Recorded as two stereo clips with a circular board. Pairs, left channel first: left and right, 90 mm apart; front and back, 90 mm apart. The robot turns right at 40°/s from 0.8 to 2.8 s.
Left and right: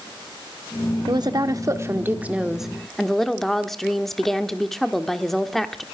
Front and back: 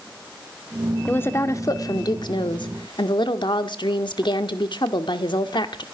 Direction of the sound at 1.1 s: 65° right.